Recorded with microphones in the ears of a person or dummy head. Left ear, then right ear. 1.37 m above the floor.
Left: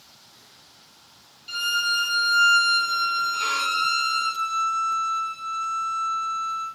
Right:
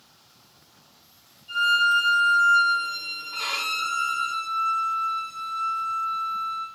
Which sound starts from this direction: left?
A violin, at 1.5 s.